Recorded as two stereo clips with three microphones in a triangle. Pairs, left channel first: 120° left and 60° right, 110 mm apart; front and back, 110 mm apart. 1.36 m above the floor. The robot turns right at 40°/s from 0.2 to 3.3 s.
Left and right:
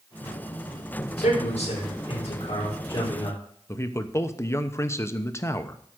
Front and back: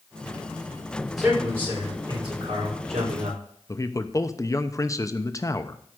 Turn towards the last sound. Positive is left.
turn(degrees=60)